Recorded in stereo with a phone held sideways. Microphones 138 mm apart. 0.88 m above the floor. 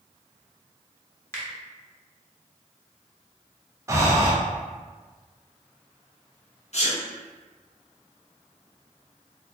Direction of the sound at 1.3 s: 20° left (ahead or behind).